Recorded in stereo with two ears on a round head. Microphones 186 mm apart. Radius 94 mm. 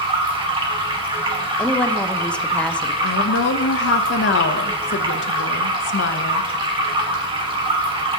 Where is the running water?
25° right (ahead or behind), 1.7 m.